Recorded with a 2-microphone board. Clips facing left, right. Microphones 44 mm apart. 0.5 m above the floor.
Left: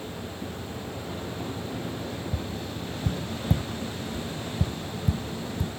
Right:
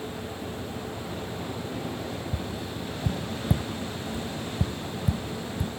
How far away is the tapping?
About 1.2 m.